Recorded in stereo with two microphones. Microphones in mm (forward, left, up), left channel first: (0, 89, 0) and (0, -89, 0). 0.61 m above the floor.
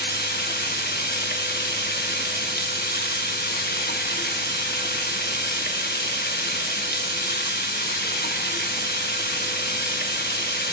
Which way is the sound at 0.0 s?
65° left (ahead or behind).